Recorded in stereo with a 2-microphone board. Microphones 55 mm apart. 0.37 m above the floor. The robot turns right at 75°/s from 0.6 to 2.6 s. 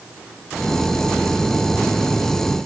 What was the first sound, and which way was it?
Only background noise.